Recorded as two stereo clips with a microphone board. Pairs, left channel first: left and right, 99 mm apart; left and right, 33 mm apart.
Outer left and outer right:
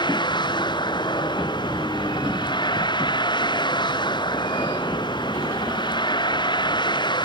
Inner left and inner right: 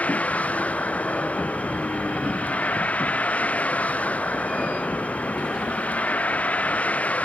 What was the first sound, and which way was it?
A vehicle, 50° left (ahead or behind).